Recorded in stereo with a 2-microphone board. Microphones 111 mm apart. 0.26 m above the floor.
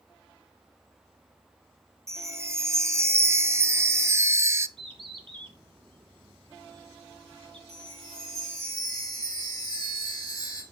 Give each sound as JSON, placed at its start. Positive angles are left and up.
{"t": 2.1, "sound": "a chime", "side_deg": -25, "distance_m": 0.5}
{"t": 4.8, "sound": "a bird", "side_deg": -50, "distance_m": 1.8}
{"t": 7.7, "sound": "a chime", "side_deg": 35, "distance_m": 2.5}